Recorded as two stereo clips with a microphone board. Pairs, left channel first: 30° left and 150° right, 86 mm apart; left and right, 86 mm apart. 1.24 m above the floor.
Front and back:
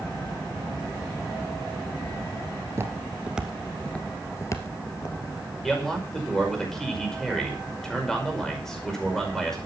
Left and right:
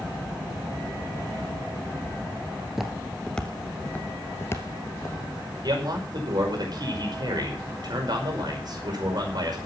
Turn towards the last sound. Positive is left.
turn(degrees=-55)